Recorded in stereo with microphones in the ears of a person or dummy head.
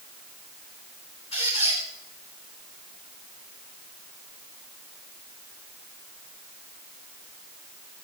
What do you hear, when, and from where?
1.3 s a squeak: 35° left (ahead or behind), 4.5 m